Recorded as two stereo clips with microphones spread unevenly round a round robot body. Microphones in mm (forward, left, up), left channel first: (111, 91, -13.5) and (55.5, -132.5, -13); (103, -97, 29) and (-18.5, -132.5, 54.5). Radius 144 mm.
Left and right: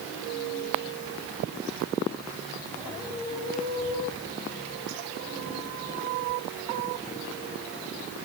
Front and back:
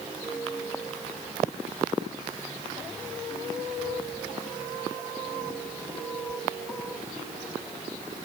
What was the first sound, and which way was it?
Only background noise.